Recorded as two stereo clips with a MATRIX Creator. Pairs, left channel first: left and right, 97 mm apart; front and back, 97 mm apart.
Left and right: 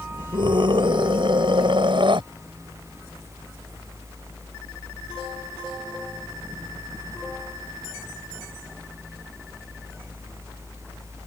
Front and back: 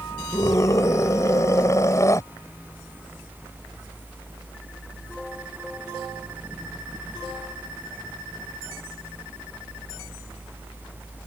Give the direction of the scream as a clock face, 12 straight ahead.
2 o'clock.